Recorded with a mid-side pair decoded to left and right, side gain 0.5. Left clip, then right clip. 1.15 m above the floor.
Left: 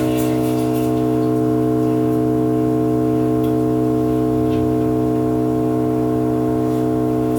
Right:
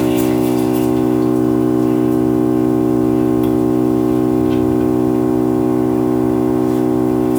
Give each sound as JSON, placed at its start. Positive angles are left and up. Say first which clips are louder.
{"t": 0.0, "sound": "an engine running", "louder": "right 3 dB", "azimuth_deg": -70, "distance_m": 1.1}